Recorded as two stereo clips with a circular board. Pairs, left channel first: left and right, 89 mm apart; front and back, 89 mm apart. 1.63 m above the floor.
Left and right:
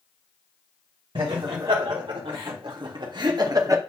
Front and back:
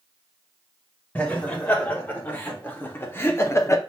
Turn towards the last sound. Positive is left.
turn(degrees=-45)